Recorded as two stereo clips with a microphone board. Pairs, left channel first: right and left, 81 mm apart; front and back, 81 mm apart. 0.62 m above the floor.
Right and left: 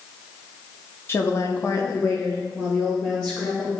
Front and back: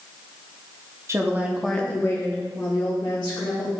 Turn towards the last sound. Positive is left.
turn(degrees=-15)